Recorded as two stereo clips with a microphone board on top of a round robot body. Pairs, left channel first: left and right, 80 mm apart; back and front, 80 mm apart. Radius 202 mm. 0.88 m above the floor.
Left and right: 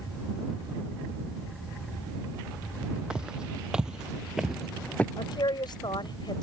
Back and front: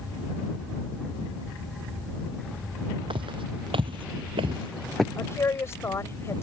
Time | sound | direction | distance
3.1 | footsteps | 10° right | ?
5.2 | a woman speaking | 120° left | ?